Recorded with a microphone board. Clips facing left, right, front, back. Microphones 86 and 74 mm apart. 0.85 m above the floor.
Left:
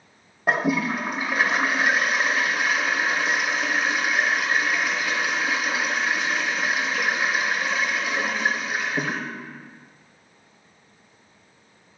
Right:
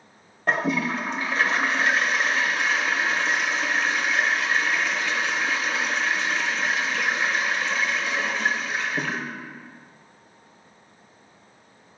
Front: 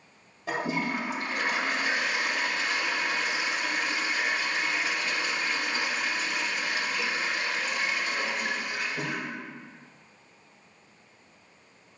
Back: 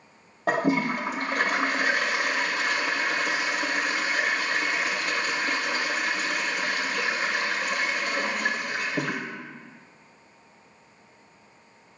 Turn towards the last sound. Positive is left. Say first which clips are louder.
# left 1 dB, back 6 dB
turn(degrees=170)